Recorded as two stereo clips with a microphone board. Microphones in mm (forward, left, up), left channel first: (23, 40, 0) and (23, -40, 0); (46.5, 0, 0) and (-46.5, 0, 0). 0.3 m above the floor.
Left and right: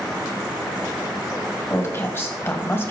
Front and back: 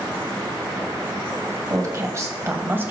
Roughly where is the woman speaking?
Behind left.